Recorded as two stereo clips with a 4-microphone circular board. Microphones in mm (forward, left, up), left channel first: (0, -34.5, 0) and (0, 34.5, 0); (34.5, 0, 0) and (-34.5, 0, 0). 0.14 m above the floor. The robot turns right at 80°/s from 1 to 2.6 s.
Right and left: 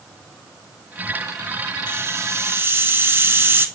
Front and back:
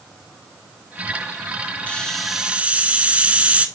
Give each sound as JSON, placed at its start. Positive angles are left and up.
{"t": 1.9, "sound": "a hiss", "azimuth_deg": 60, "distance_m": 0.7}